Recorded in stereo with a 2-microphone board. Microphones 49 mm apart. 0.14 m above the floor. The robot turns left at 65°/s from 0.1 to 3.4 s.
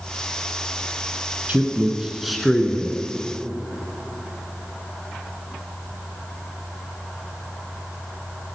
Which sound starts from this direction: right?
A man speaking, at 1.5 s.